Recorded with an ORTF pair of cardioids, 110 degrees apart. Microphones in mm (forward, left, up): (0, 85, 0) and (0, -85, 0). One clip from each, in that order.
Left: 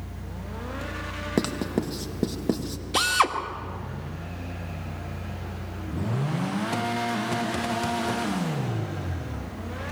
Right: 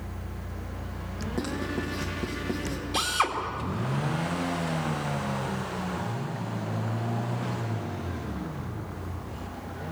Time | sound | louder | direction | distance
1.4 | writing | left 4 dB | 60° left | 2 m
2.9 | a drill | left 4 dB | 35° left | 2.5 m